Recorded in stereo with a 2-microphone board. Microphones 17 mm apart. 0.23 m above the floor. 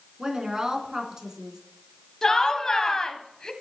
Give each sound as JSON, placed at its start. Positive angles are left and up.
{"t": 0.2, "sound": "a woman speaking", "side_deg": -35, "distance_m": 3.0}
{"t": 2.2, "sound": "laughter", "side_deg": 30, "distance_m": 1.1}